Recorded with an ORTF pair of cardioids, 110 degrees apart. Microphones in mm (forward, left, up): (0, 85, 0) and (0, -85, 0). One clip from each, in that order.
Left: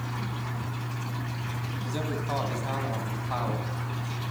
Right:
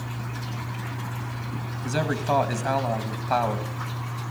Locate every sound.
1.8 s a man speaking: 60° right, 2.5 m